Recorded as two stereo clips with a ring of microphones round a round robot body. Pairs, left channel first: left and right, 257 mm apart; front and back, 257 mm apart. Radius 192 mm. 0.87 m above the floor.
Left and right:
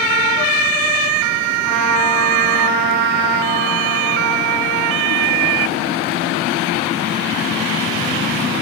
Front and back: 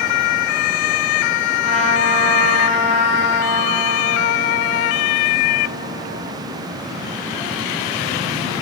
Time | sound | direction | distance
1.6 | a trumpet | 115° right | 5 m